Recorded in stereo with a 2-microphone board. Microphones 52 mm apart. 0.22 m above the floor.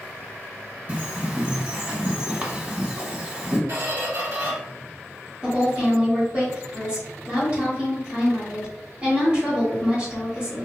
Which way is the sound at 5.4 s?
25° right (ahead or behind).